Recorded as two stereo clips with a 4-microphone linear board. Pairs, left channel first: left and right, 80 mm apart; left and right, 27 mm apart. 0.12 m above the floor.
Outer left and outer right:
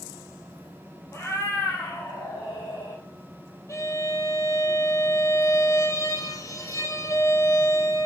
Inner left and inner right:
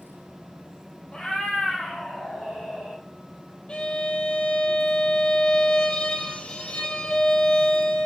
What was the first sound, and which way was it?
A cat meowing, 35° left (ahead or behind).